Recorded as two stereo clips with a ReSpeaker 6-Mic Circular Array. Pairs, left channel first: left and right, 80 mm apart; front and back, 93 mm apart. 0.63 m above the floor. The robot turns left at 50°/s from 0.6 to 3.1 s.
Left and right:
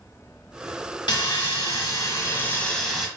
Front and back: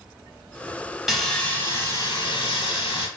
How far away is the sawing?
About 1.0 m.